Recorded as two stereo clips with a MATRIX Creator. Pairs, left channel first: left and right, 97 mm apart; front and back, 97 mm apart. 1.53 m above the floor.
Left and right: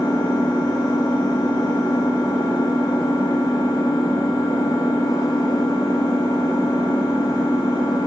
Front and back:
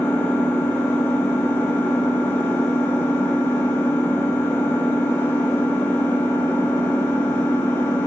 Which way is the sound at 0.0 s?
65° left.